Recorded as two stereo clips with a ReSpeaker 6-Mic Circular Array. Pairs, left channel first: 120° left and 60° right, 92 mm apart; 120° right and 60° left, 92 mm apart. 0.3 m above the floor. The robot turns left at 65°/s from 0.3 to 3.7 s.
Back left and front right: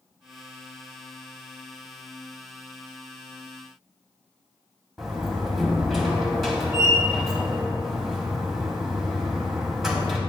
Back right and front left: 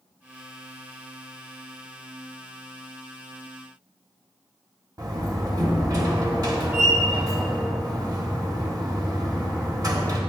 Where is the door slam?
30° left, 1.5 m.